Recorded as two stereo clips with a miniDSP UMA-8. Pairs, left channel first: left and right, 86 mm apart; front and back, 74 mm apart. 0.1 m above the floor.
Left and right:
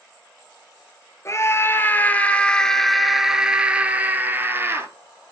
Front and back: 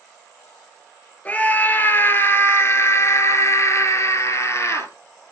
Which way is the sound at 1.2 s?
60° left.